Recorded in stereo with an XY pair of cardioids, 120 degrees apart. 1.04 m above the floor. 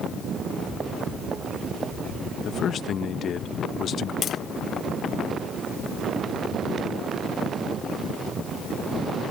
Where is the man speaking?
50° left.